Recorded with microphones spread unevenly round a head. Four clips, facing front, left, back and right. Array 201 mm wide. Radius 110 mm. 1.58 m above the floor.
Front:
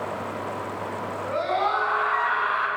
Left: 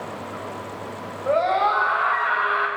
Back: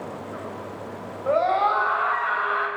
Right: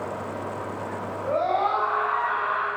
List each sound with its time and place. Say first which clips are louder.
1.3 s a scream: left 4 dB, back 5 dB; 120° left, 7.5 m; by 2.7 s 115° left, 8 m